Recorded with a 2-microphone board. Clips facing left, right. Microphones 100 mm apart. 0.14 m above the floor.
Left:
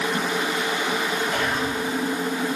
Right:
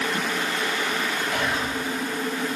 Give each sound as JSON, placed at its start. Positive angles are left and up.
{"t": 1.3, "sound": "whispering", "side_deg": -5, "distance_m": 3.5}